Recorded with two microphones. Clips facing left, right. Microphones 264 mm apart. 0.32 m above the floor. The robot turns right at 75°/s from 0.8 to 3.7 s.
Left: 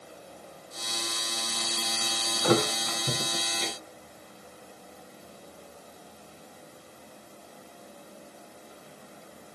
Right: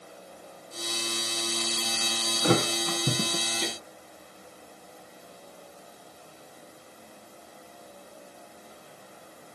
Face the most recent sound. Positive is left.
turn(degrees=-55)  # may be behind; listen again after turning